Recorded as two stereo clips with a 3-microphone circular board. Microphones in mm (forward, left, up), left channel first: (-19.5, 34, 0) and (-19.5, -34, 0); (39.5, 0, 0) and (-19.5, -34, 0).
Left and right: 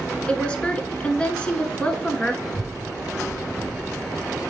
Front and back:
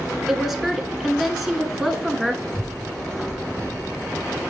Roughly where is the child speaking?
Ahead.